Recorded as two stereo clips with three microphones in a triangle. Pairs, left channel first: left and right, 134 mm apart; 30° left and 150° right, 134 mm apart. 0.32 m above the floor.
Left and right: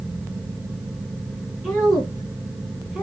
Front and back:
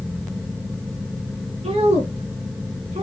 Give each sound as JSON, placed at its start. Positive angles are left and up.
{"t": 1.6, "sound": "a woman speaking", "azimuth_deg": 180, "distance_m": 3.5}